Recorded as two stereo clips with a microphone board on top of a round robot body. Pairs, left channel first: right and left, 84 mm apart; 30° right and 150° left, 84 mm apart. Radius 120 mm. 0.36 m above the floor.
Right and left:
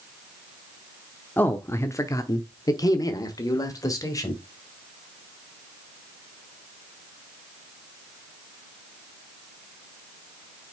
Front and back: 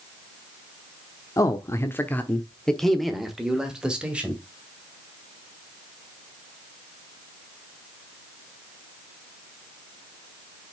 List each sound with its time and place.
1.4 s a man speaking: 35° right, 1.0 m; by 4.4 s 135° right, 2 m